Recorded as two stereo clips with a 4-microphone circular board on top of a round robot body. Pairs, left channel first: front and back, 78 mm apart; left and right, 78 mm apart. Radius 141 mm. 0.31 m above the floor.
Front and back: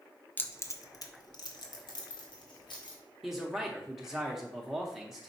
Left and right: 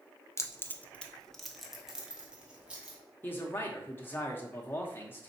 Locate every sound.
0.4 s keys jangling: 55° left, 0.7 m; by 3.0 s 15° right, 1.7 m
3.2 s a man speaking: 100° left, 0.9 m